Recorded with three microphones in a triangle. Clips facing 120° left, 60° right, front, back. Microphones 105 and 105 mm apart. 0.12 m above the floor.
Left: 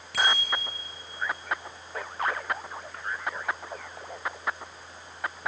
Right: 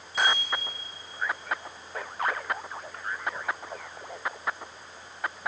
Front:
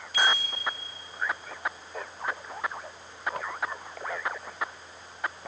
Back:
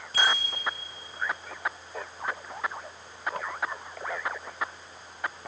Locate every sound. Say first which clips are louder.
0.1 s a bicycle bell: even, front 1 dB; 130° left, 7.5 m